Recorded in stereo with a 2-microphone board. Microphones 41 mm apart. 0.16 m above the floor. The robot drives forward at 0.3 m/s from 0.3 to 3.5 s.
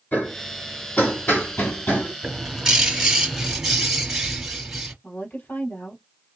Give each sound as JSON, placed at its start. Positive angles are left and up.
{"t": 0.1, "sound": "hammering", "side_deg": 45, "distance_m": 4.0}
{"t": 2.2, "sound": "a bird", "side_deg": -20, "distance_m": 2.0}
{"t": 5.0, "sound": "a woman speaking", "side_deg": 50, "distance_m": 3.5}